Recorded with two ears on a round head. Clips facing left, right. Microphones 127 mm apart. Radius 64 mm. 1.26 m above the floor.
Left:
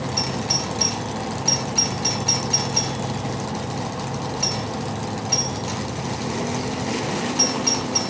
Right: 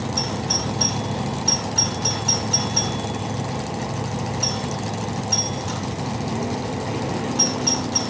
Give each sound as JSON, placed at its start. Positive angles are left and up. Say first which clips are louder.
{"t": 0.2, "sound": "a doorbell", "louder": "even", "side_deg": 10}